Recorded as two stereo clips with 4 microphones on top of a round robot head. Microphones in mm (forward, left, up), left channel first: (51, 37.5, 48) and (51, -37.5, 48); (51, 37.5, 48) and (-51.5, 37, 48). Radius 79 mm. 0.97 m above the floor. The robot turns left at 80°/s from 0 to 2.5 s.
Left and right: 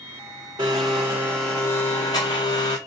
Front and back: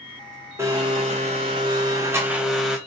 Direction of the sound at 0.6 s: 110° right.